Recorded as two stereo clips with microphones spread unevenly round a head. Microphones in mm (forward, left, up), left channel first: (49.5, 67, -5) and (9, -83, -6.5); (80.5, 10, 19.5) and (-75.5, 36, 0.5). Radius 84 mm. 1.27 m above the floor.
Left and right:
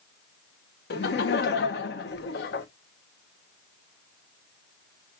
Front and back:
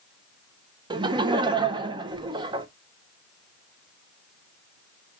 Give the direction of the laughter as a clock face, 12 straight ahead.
8 o'clock.